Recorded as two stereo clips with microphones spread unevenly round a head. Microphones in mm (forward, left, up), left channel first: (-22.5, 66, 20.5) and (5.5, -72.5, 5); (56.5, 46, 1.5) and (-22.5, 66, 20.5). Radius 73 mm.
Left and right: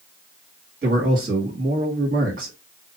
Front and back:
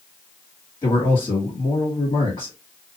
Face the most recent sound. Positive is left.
turn(degrees=-50)